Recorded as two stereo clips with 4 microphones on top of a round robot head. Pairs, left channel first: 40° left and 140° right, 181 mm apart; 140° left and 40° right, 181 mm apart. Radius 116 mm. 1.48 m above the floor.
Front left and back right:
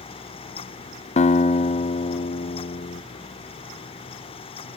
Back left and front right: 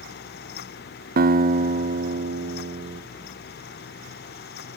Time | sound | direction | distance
1.2 | a guitar | 10° right | 0.5 m